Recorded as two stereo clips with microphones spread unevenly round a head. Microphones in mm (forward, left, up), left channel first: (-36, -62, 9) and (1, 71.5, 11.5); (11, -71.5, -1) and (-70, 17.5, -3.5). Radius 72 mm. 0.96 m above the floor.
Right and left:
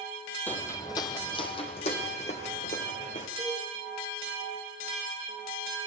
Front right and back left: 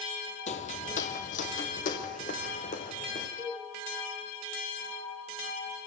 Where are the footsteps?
25° right, 1.6 m; by 3.3 s 60° right, 4.5 m.